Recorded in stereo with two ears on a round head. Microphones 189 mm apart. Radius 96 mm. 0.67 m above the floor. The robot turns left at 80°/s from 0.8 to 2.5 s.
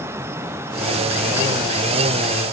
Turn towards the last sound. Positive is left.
No sound to turn to.